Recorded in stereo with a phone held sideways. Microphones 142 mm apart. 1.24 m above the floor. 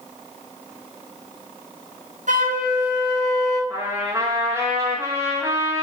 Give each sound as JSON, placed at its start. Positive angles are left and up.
{"t": 2.3, "sound": "a flute", "side_deg": -60, "distance_m": 0.7}
{"t": 3.7, "sound": "a trumpet", "side_deg": -20, "distance_m": 0.8}